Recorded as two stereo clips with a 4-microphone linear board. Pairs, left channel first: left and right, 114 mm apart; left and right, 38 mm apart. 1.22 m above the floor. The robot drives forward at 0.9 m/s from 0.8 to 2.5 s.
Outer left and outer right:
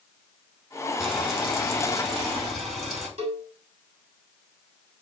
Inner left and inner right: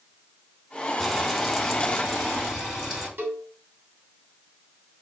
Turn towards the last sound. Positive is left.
turn(degrees=-65)  # may be behind; listen again after turning